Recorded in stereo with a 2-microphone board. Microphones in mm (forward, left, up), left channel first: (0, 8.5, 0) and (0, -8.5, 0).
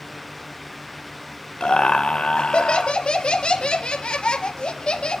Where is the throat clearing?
No throat clearing in this recording.